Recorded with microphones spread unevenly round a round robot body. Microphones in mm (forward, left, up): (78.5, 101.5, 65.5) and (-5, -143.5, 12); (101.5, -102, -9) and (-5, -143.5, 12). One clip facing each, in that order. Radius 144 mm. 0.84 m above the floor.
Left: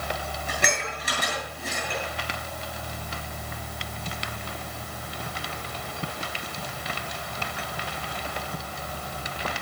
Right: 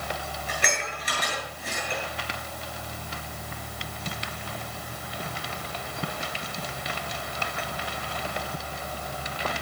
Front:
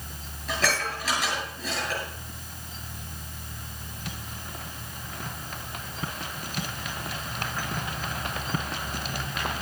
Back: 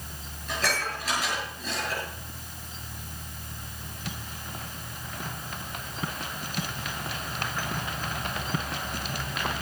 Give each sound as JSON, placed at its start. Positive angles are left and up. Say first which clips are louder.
{"t": 0.5, "sound": "dishes clattering", "louder": "left 2 dB, front 2 dB", "azimuth_deg": 25, "distance_m": 9.0}